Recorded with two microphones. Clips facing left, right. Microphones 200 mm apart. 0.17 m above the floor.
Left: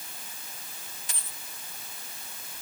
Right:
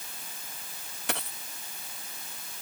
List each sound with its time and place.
1.1 s a dropped coin: 75° right (ahead or behind)